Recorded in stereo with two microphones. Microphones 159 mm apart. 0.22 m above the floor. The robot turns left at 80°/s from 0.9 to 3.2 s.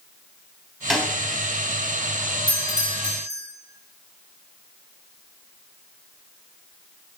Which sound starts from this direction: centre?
A snare drum, at 0.9 s.